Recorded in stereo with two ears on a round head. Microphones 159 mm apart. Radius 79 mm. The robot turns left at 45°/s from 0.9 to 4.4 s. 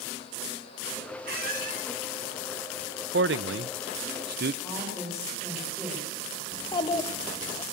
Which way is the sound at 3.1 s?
60° right (ahead or behind).